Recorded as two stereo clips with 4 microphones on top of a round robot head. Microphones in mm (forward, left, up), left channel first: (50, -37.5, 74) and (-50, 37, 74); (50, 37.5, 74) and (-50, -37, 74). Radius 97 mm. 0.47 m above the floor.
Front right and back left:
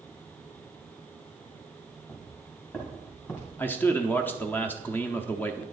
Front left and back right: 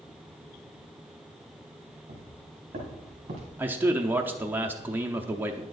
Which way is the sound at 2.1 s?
110° right.